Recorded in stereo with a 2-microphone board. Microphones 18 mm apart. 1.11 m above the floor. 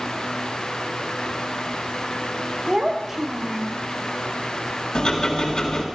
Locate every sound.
2.7 s a child speaking: 25° right (ahead or behind), 1.1 m
5.0 s ticking: 60° left (ahead or behind), 1.7 m